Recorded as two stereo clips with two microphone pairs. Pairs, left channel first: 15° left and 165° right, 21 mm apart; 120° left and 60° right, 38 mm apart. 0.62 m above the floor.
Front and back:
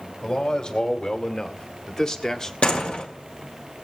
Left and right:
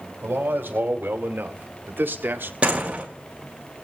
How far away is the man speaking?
About 2.5 m.